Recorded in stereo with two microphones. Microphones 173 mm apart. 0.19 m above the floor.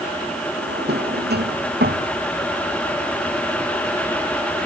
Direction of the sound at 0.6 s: 85° right.